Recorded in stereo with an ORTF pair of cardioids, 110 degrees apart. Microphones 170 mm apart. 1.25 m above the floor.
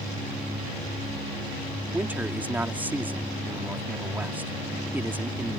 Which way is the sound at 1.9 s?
10° right.